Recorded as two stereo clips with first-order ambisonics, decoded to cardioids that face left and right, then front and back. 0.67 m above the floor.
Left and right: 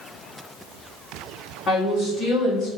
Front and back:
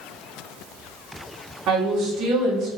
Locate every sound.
1.7 s a woman speaking: 145° left, 1.9 m